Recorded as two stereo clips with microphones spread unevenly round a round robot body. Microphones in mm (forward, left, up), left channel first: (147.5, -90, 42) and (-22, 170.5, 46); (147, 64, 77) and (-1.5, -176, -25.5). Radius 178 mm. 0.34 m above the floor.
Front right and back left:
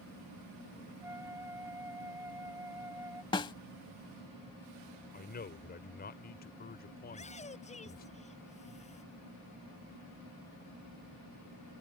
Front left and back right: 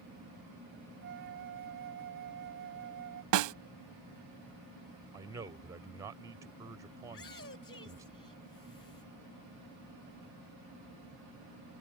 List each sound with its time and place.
1.0 s a flute: 155° right
3.3 s a snare drum: 135° right
5.1 s a man speaking: 90° right
7.0 s a shout: 10° left